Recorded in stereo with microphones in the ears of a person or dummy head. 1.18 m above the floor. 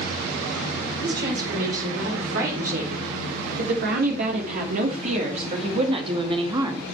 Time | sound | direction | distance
1.0 | a woman speaking | 75° right (ahead or behind) | 4 m